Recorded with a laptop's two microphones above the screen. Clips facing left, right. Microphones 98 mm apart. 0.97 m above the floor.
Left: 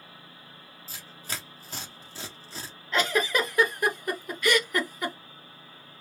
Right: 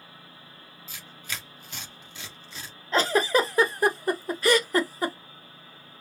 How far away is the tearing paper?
About 1.1 m.